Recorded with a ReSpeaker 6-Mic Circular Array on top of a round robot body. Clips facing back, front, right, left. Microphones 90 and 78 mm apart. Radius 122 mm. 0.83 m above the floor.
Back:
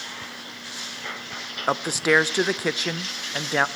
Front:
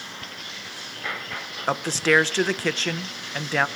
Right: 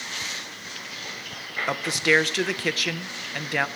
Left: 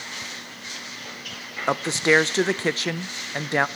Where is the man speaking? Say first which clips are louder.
Even, left 3 dB; 115° left, 0.5 m.